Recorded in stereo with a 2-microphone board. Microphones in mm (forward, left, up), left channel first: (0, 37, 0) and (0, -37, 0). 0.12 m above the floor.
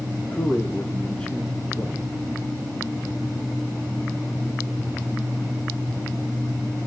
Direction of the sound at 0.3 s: 15° left (ahead or behind).